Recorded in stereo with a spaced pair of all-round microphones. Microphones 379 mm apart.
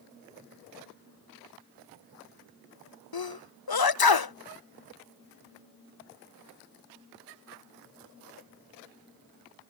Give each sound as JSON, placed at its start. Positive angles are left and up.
{"t": 3.1, "sound": "a sneeze", "side_deg": 70}